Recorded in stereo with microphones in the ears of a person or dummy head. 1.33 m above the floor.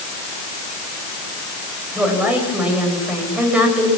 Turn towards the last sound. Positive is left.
turn(degrees=-5)  # may be behind; listen again after turning